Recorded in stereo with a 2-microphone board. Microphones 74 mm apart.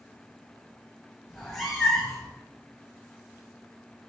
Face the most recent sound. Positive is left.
turn(degrees=5)  # may be behind; listen again after turning